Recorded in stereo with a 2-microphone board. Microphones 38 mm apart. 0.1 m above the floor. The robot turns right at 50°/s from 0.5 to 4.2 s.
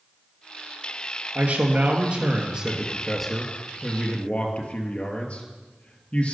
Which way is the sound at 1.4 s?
95° right.